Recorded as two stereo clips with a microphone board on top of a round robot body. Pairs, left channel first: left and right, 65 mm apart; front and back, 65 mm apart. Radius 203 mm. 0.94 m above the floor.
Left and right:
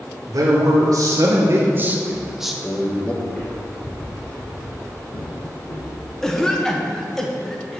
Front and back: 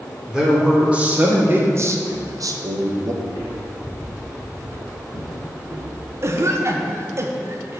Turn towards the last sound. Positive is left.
turn(degrees=170)